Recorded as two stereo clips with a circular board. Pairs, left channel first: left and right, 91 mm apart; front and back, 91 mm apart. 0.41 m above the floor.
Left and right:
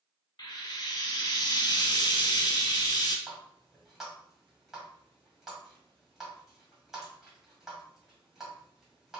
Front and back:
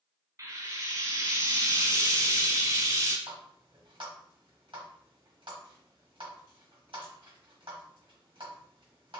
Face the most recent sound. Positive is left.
turn(degrees=-175)